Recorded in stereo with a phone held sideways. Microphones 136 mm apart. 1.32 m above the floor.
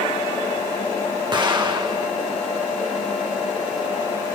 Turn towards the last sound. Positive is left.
turn(degrees=-35)  # may be behind; listen again after turning